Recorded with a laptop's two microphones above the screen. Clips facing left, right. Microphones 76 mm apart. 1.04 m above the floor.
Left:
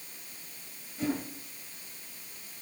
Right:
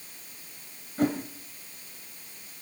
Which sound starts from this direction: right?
A whoosh, at 1.0 s.